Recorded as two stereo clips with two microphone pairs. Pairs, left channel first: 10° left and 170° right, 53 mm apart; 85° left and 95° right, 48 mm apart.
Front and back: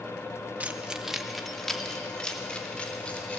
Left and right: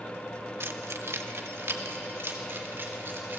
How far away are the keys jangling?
About 1.4 m.